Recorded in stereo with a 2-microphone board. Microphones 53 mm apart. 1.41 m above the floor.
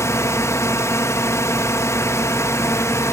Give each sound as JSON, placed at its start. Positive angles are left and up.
{"t": 0.0, "sound": "a drone", "side_deg": 65}